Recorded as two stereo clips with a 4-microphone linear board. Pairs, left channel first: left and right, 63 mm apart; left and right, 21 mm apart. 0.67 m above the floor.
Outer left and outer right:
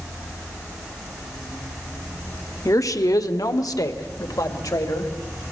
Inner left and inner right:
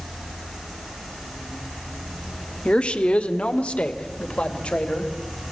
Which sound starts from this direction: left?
A woman speaking, at 2.6 s.